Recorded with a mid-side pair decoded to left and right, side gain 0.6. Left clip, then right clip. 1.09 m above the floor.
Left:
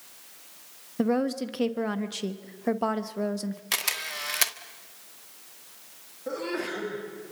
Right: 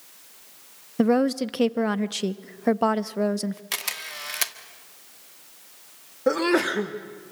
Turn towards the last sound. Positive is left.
turn(degrees=-60)